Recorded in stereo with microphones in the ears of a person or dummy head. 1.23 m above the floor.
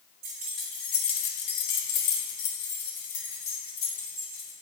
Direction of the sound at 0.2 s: 20° right (ahead or behind).